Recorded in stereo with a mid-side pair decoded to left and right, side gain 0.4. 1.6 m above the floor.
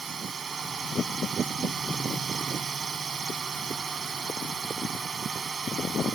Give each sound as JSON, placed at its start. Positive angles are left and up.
{"t": 0.0, "sound": "a drone", "azimuth_deg": -45}